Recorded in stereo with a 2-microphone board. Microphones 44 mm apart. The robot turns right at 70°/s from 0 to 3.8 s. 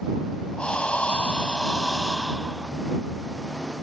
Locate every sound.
0.6 s breathing: 25° left (ahead or behind); by 2.7 s 15° right (ahead or behind)